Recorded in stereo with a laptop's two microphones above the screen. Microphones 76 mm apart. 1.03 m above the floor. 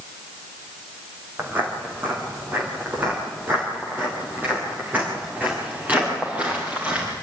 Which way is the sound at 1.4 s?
25° right (ahead or behind).